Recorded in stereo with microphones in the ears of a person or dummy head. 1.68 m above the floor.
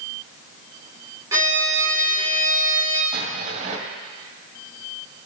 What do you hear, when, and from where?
1.3 s a violin: 10° right (ahead or behind), 2.5 m
3.1 s an explosion: 50° right (ahead or behind), 2 m